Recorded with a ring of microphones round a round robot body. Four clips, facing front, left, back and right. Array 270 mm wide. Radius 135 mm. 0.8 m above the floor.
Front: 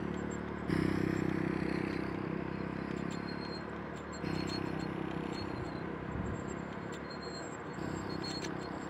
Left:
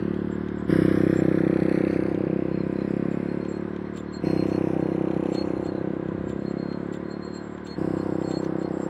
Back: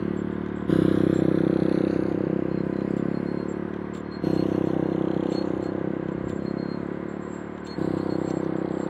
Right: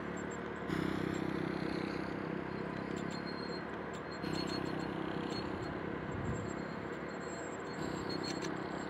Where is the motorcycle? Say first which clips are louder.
Left 14 dB, back 11 dB; 130° left; by 8.9 s 140° left.